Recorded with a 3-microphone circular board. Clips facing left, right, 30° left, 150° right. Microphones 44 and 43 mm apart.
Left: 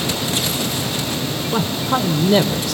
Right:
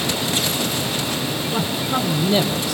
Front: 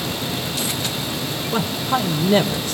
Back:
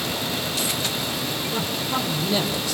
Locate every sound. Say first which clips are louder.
1.5 s a man speaking: left 4 dB, front 7 dB; 80° left, 3.5 m